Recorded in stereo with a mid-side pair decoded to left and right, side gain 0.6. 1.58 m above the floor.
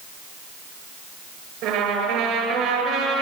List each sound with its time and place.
1.6 s a trumpet: 70° right, 8 m